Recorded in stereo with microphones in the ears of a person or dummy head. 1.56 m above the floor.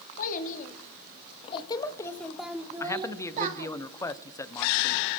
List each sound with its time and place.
0.2 s a child speaking: 50° left (ahead or behind), 2.5 m; by 3.7 s 50° right (ahead or behind), 1.3 m
2.8 s a man speaking: 15° left (ahead or behind), 0.8 m